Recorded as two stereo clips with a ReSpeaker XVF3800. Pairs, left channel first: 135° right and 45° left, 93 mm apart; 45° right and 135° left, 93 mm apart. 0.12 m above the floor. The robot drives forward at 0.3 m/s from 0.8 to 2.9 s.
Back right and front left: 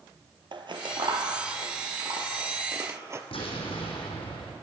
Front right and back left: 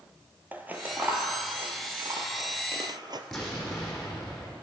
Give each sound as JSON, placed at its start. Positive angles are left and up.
{"t": 0.5, "sound": "scissors", "azimuth_deg": 65, "distance_m": 1.1}
{"t": 3.3, "sound": "an explosion", "azimuth_deg": -130, "distance_m": 3.5}